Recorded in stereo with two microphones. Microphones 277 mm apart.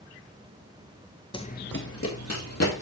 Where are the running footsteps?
20° left (ahead or behind), 0.7 m; by 2.8 s 70° left (ahead or behind), 1.8 m.